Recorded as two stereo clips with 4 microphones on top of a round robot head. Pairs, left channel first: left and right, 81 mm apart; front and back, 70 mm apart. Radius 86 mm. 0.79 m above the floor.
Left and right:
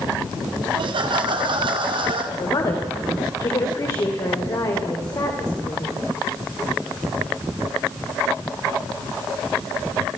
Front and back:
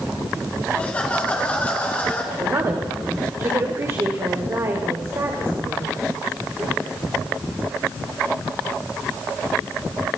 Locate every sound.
0.7 s laughter: 75° right, 1.9 m; by 2.2 s 70° right, 3 m
2.3 s a woman speaking: 130° left, 3 m